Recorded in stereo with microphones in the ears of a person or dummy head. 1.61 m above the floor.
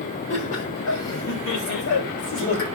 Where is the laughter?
65° left (ahead or behind), 7.5 m; by 2.6 s 75° left (ahead or behind), 7.5 m.